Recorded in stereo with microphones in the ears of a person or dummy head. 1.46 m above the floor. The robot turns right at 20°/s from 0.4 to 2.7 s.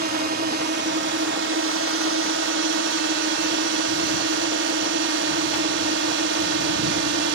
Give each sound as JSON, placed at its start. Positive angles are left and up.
{"t": 0.0, "sound": "a drone", "azimuth_deg": -120}